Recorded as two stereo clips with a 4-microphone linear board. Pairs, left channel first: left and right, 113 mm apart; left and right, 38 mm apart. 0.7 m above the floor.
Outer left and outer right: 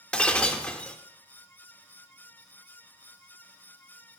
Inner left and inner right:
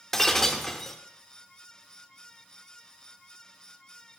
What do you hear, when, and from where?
0.1 s breaking glass: 10° left (ahead or behind), 0.6 m